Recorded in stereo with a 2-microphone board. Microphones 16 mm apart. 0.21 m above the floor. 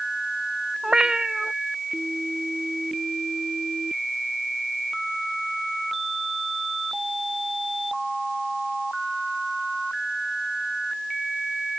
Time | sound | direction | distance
0.8 | a cat meowing | 55° right (ahead or behind) | ?